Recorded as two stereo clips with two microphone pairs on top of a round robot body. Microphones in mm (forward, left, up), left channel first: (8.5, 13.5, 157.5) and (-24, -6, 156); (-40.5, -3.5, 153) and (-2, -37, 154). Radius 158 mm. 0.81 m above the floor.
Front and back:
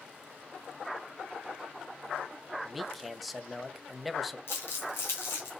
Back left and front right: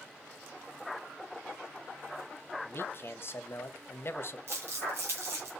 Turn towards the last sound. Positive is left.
turn(degrees=0)